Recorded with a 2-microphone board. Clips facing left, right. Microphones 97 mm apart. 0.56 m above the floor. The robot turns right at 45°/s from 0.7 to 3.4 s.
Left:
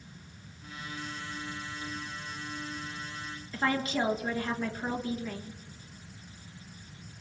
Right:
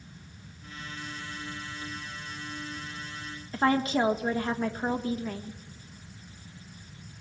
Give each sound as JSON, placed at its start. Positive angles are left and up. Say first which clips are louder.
{"t": 3.5, "sound": "a woman speaking", "louder": "right 5 dB", "side_deg": -40, "distance_m": 1.4}